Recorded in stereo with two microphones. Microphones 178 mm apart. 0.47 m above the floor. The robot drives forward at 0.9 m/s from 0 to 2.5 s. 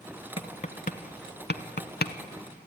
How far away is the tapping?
About 1.5 m.